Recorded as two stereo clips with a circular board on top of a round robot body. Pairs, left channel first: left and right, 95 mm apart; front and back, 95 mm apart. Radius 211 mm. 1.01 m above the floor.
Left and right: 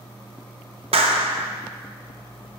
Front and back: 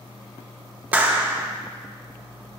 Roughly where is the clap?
Right.